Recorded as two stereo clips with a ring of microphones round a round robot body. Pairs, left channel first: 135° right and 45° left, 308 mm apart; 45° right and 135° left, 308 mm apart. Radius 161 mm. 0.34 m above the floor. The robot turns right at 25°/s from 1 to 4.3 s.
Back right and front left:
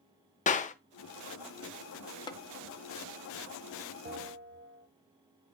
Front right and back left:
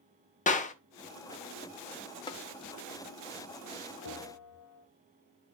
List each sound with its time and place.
0.5 s a clap: 90° right, 0.7 m
2.3 s tapping: 90° right, 0.7 m; by 2.4 s 85° right, 0.7 m
4.0 s a bell: 15° right, 1.0 m; by 4.9 s 10° right, 1.0 m